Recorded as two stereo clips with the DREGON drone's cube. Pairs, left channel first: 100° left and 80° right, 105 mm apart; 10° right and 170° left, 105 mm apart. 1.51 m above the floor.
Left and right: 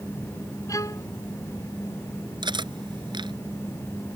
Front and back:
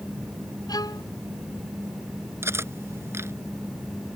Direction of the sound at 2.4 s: 125° right.